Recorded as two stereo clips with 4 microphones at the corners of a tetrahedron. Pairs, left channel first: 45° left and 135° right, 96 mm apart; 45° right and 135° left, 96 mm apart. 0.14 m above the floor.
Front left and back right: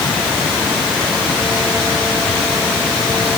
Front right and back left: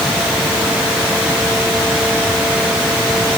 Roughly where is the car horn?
No car horn in this recording.